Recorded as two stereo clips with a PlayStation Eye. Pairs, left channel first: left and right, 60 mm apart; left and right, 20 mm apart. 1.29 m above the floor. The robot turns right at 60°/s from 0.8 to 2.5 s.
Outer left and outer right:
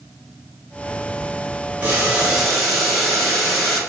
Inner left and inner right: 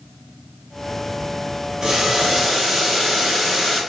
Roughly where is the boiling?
Ahead right.